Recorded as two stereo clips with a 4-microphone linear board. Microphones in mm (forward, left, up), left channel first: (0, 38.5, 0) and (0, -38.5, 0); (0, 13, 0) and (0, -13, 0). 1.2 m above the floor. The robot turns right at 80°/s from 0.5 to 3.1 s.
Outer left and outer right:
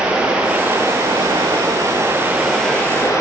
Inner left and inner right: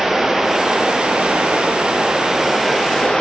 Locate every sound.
0.0 s running water: 165° right, 7 m; by 3.2 s 40° left, 7 m